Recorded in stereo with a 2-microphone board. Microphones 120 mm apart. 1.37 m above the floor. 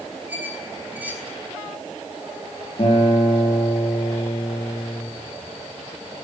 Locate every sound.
0.3 s a squeak: 15° right (ahead or behind), 5.5 m
2.8 s a guitar: 50° left (ahead or behind), 9.5 m